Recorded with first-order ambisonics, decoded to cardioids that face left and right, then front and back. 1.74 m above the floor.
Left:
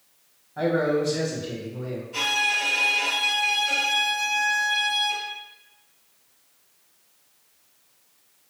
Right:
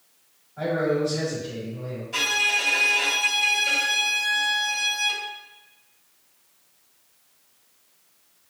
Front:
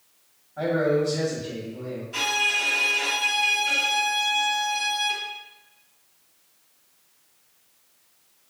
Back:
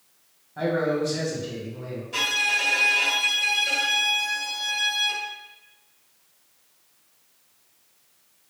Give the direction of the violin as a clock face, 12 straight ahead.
4 o'clock.